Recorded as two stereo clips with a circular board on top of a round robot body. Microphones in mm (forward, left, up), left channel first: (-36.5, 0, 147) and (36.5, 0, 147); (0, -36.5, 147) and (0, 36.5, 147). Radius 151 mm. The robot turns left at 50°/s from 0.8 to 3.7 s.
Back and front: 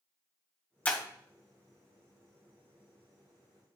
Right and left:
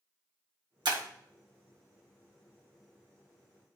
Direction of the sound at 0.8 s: 110° left.